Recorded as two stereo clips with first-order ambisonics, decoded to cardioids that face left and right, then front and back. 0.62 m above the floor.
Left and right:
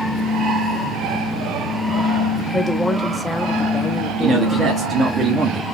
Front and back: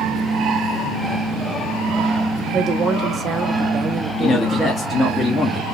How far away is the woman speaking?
About 0.7 m.